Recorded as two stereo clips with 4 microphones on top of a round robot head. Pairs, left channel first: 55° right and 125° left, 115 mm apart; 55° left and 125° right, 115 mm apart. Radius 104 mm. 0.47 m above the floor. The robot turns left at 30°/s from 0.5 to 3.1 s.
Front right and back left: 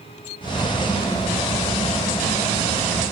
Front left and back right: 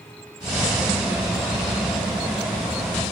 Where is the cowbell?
No cowbell in this recording.